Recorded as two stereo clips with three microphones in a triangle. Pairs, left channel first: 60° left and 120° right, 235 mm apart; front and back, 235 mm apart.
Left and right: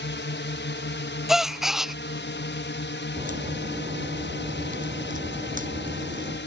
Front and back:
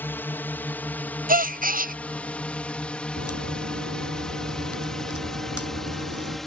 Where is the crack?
175° right.